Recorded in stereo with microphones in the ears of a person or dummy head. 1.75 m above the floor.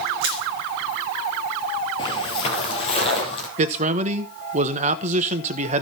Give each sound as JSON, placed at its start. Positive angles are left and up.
{"t": 0.2, "sound": "crushing", "side_deg": -60, "distance_m": 1.1}
{"t": 2.0, "sound": "footsteps", "side_deg": 30, "distance_m": 2.5}
{"t": 3.6, "sound": "a man speaking", "side_deg": -40, "distance_m": 1.2}